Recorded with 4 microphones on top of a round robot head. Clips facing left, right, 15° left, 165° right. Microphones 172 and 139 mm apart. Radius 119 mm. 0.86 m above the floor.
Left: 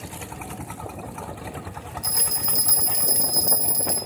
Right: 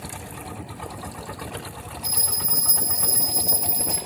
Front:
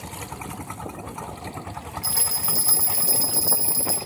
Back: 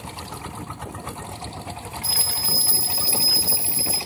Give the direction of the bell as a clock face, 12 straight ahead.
10 o'clock.